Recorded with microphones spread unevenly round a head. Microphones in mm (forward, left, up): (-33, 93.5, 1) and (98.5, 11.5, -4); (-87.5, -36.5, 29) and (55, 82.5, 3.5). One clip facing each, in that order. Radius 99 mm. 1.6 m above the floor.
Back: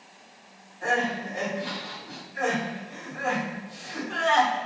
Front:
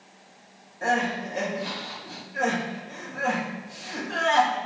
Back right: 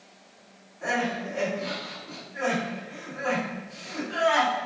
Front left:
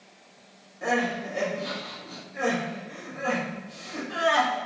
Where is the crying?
10° right, 1.1 m.